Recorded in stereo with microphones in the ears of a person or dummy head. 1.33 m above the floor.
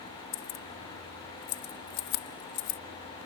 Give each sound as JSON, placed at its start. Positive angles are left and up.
{"t": 0.3, "sound": "keys jangling", "side_deg": 65}